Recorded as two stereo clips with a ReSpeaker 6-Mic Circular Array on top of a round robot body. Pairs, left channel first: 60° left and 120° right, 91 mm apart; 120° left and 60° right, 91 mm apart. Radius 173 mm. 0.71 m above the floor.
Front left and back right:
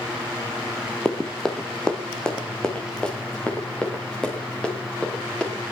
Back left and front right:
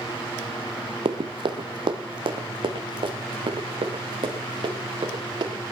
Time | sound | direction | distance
1.1 | running footsteps | 25° right | 1.2 m